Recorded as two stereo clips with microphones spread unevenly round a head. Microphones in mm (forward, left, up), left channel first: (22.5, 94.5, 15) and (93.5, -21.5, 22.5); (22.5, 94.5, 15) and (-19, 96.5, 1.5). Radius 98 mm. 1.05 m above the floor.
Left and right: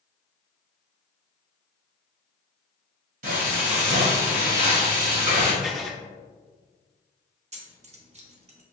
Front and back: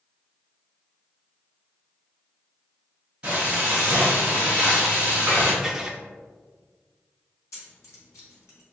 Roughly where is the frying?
Right.